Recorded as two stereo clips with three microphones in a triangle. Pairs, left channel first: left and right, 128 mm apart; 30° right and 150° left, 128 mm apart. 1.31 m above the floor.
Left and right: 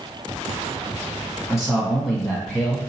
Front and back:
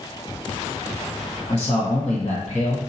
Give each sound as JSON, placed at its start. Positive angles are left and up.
{"t": 1.5, "sound": "a man speaking", "azimuth_deg": -5, "distance_m": 1.4}